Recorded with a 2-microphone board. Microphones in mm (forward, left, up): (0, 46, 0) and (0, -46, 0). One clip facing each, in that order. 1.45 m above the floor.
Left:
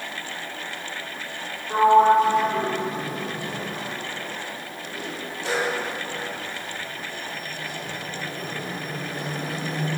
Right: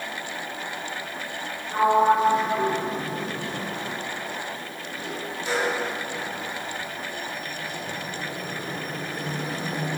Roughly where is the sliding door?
Left.